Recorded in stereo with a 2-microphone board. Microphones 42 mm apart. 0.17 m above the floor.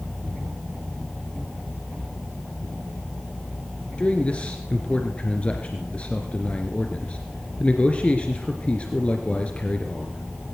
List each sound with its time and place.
4.0 s a man speaking: 30° left (ahead or behind), 2.5 m